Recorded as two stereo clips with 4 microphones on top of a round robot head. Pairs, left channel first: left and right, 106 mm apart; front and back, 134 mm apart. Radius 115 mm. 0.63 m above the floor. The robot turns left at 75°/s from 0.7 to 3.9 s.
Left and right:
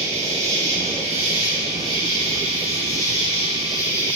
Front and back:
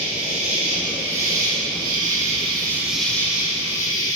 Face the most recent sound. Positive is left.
turn(degrees=25)